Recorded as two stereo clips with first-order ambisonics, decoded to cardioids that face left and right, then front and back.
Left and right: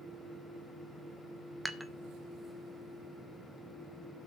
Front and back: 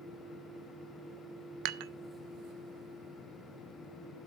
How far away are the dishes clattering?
About 0.5 m.